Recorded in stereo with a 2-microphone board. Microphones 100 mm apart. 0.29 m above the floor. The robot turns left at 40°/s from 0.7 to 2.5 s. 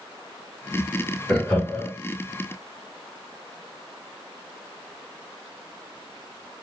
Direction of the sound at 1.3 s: Centre (ahead or behind).